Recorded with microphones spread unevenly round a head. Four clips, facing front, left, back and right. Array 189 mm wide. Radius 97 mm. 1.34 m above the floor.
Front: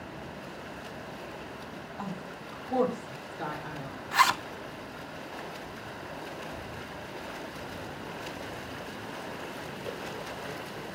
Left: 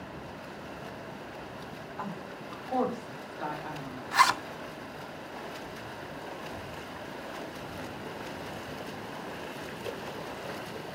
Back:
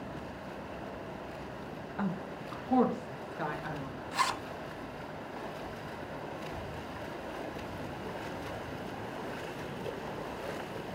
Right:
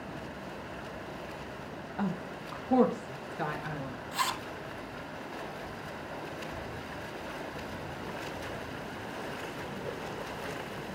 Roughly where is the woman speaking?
Behind right.